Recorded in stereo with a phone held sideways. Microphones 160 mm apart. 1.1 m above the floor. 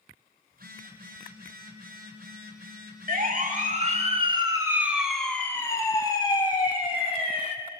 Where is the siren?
65° right (ahead or behind), 2 m; by 7.5 s 40° left (ahead or behind), 3.5 m.